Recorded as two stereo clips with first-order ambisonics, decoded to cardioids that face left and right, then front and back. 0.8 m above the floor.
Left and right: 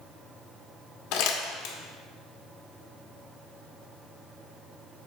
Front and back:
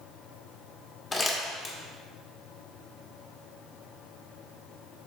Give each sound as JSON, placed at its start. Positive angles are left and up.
{"t": 1.1, "sound": "crumpling", "azimuth_deg": 70, "distance_m": 1.4}